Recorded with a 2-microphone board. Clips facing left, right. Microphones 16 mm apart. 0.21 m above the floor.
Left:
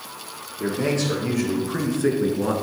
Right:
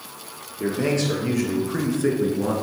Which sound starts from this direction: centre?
A man speaking, at 0.6 s.